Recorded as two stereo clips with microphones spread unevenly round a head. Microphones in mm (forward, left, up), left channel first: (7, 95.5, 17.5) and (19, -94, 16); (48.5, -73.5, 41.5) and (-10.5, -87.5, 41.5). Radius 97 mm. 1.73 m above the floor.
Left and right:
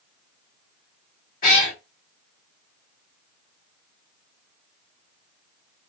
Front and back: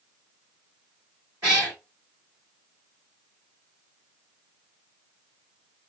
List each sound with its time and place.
1.4 s a cat meowing: 130° left, 1.9 m